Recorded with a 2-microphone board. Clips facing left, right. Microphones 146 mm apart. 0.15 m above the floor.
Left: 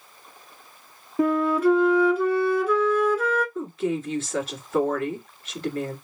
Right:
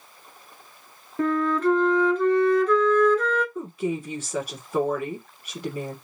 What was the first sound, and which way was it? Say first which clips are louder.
A flute: left 2 dB; 10° left (ahead or behind).